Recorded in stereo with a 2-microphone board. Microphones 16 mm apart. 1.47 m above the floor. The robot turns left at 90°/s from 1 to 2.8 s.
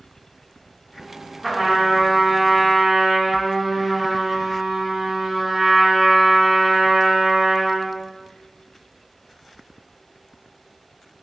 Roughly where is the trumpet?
Centre.